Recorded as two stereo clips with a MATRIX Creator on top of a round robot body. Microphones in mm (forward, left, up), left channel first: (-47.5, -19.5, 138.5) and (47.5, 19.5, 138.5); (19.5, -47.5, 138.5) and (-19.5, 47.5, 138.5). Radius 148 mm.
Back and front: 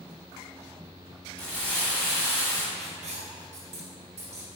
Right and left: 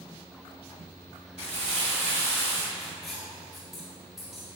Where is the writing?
25° left, 0.6 m.